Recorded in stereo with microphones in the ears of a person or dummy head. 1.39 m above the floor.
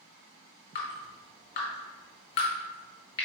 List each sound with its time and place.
0.8 s dripping: 30° left (ahead or behind), 1.3 m